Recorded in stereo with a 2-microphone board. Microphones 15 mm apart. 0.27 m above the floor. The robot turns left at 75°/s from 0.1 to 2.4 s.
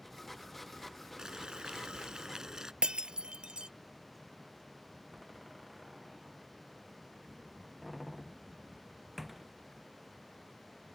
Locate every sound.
1.2 s boiling: 45° right; by 2.7 s 135° right
2.8 s breaking glass: 75° right (ahead or behind)
5.1 s a door slam: centre (ahead or behind)